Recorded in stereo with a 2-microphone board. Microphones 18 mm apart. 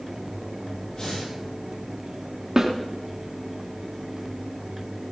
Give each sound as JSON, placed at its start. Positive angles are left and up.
{"t": 0.9, "sound": "breathing", "side_deg": 45, "distance_m": 6.5}
{"t": 2.6, "sound": "a snare drum", "side_deg": -25, "distance_m": 2.5}